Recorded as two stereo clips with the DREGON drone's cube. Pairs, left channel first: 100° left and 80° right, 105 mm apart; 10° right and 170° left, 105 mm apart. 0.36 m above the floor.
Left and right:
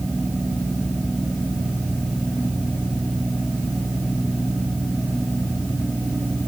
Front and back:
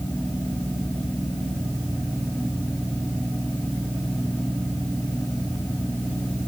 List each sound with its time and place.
Only background noise.